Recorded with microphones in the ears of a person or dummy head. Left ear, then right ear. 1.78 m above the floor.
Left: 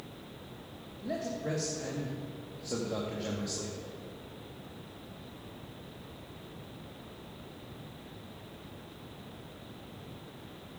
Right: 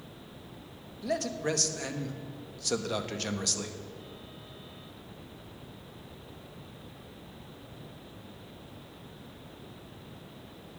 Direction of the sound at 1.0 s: 75° right (ahead or behind).